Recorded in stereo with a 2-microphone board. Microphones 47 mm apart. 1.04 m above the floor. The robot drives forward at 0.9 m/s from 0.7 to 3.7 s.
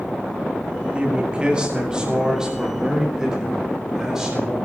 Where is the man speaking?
25° right (ahead or behind), 1.6 m; by 4.5 s 10° right (ahead or behind), 4 m.